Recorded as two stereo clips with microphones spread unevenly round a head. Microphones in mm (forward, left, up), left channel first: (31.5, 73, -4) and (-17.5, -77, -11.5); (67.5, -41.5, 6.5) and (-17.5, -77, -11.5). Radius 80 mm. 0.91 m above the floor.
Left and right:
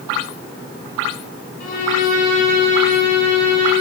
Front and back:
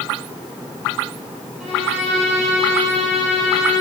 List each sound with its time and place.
1.6 s a violin: 115° left, 8.5 m